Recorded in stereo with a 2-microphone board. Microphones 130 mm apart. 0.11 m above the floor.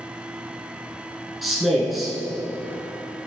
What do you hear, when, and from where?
1.4 s a man speaking: centre (ahead or behind), 1.6 m